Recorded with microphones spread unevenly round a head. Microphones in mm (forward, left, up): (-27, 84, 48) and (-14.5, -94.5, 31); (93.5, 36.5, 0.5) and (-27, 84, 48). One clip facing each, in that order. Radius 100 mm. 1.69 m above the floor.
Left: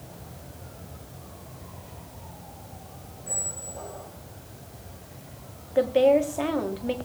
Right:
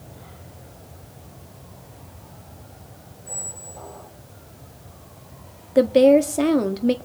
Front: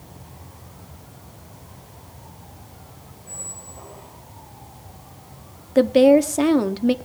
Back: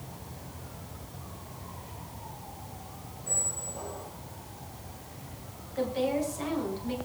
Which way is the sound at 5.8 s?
35° right.